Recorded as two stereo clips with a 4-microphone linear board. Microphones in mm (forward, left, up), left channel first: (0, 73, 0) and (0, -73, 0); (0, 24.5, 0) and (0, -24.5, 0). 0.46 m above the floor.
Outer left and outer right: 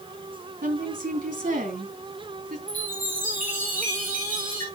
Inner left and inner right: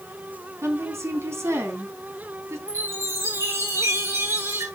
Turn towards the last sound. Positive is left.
turn(degrees=-70)  # may be behind; listen again after turning